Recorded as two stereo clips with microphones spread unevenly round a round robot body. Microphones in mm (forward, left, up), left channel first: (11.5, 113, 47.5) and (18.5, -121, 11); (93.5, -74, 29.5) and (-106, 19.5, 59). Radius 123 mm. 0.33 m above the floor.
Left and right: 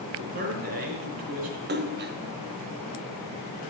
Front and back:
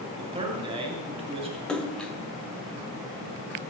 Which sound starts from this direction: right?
A splash, at 1.7 s.